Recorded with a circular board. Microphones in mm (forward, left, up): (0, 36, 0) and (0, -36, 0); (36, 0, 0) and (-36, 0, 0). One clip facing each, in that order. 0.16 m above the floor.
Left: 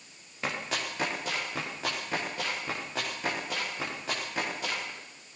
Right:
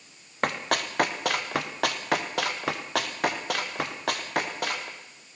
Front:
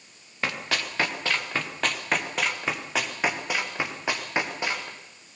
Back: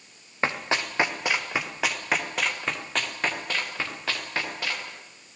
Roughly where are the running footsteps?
Behind right.